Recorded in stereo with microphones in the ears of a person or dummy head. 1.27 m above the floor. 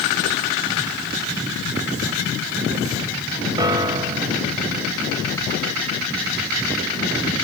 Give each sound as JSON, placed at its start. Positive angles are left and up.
{"t": 3.6, "sound": "a piano", "side_deg": -20}